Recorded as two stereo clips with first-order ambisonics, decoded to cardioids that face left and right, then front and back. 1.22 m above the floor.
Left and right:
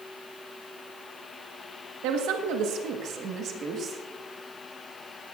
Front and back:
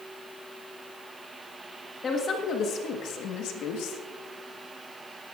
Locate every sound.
2.0 s a woman speaking: 70° right, 1.3 m; by 4.0 s 25° right, 1.8 m